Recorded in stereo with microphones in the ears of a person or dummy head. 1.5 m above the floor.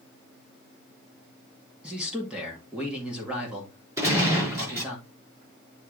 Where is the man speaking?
10° right (ahead or behind), 2 m.